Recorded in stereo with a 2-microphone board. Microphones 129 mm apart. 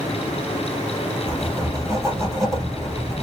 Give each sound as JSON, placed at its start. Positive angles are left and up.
{"t": 1.3, "sound": "writing", "side_deg": -20, "distance_m": 3.0}